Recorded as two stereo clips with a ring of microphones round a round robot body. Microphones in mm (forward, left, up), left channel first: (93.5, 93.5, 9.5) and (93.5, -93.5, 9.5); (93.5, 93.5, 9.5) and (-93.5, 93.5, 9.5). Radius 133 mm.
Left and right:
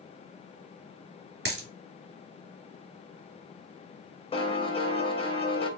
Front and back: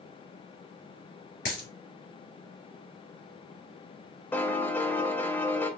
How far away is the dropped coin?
About 2 m.